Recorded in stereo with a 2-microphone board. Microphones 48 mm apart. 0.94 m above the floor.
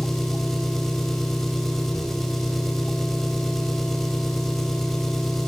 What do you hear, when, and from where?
0.0 s an engine running: 5° left (ahead or behind), 4 m